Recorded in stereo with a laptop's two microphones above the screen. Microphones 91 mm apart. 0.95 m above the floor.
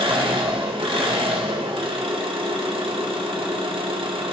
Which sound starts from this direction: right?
An engine running, at 0.0 s.